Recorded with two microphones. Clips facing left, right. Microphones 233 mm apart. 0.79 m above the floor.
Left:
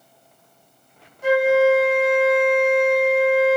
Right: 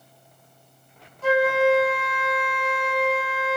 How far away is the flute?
About 0.6 m.